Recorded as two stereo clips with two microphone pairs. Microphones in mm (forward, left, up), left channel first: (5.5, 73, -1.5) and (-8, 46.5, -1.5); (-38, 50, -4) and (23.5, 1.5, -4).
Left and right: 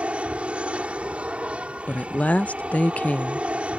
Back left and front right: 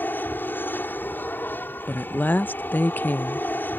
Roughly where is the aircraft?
Behind right.